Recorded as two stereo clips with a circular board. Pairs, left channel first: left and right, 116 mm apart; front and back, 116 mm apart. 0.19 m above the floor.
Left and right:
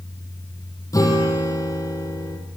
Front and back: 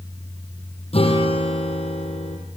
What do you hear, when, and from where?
0.9 s a guitar: 30° left, 7 m